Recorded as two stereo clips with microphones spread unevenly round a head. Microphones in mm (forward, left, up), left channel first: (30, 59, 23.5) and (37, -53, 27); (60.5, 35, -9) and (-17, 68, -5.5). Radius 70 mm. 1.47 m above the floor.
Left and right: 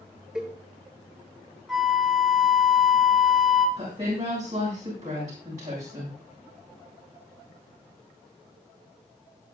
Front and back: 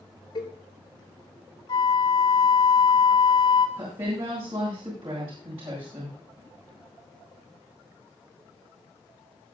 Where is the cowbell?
Straight ahead, 7.5 m.